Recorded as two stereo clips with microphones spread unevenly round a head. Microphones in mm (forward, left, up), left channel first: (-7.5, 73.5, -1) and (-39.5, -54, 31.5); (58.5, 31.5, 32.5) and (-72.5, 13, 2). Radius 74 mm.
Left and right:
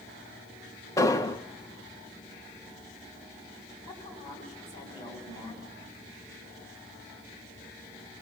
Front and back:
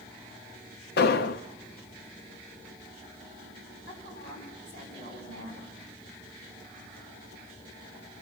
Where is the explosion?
15° left, 0.7 m.